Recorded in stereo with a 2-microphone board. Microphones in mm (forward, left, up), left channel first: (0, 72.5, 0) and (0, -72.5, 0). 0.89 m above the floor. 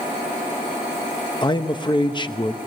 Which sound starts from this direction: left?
A man speaking, at 1.4 s.